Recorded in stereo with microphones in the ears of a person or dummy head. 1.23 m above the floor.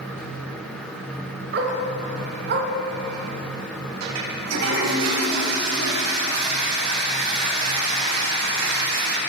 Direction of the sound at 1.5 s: 55° right (ahead or behind).